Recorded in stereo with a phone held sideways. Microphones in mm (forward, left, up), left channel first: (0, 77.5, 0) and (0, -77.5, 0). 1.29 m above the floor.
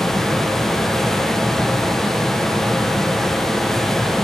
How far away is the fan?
About 0.9 m.